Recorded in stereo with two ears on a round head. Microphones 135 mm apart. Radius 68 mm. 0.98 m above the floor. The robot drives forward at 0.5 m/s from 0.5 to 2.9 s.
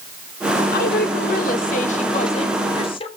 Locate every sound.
0.7 s a woman speaking: 70° left (ahead or behind), 0.9 m; by 3.1 s 35° left (ahead or behind), 1.3 m